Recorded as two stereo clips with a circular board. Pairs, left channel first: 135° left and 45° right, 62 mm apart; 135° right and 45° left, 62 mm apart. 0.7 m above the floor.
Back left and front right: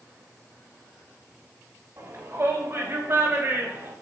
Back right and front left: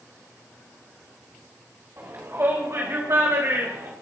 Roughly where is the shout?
Ahead.